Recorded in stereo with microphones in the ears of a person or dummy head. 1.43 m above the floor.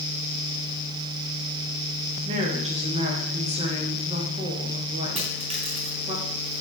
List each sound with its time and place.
2.2 s a woman speaking: 30° right (ahead or behind), 1.2 m
5.2 s a dropped coin: 35° right (ahead or behind), 2.5 m